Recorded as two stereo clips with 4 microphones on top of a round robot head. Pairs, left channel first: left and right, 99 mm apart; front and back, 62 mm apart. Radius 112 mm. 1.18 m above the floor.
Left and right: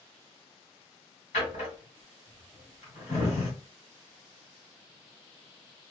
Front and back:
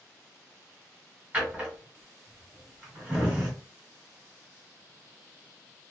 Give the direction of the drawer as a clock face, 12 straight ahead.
8 o'clock.